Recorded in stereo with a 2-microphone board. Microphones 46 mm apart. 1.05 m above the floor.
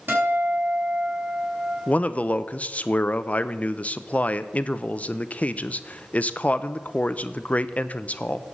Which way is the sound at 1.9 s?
30° left (ahead or behind).